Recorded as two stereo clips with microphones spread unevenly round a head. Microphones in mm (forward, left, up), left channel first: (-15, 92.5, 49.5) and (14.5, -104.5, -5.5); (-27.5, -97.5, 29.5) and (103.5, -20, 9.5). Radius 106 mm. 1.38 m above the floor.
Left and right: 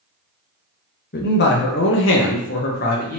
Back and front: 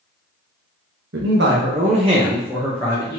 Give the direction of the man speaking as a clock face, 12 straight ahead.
10 o'clock.